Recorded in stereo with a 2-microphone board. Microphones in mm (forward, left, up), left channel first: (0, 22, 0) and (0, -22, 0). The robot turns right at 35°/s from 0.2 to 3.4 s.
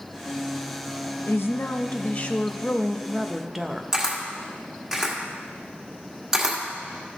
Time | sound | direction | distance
1.3 | a woman speaking | 115° left | 0.7 m
3.9 | a camera shutter | 15° right (ahead or behind) | 1.4 m